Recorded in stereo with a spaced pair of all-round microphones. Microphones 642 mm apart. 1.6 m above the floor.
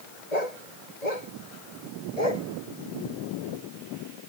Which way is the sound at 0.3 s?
75° left (ahead or behind).